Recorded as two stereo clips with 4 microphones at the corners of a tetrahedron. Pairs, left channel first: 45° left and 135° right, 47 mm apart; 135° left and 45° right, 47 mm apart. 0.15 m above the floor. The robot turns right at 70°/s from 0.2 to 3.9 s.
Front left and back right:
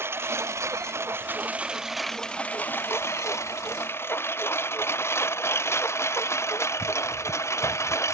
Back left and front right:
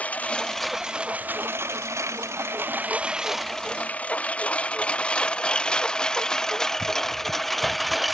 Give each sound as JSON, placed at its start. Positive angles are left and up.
{"t": 0.0, "sound": "a lawn mower", "azimuth_deg": -165}